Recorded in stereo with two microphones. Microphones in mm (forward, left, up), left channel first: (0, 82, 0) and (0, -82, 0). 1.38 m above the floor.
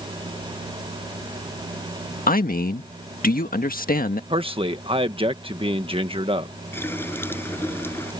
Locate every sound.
2.3 s a man speaking: 60° left (ahead or behind)
4.3 s a man speaking: 35° right (ahead or behind)
6.7 s a running tap: 15° left (ahead or behind)